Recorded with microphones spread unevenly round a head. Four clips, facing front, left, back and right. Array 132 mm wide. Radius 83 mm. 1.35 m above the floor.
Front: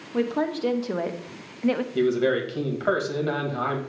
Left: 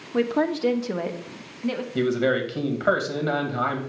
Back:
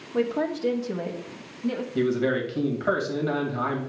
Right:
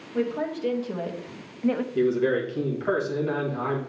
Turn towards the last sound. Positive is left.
turn(degrees=60)